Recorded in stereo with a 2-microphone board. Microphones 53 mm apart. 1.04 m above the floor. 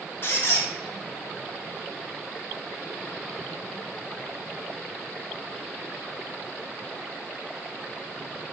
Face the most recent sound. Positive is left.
turn(degrees=45)  # may be behind; listen again after turning